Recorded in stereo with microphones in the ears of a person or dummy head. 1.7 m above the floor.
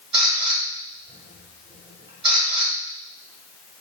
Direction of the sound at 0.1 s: 30° right (ahead or behind).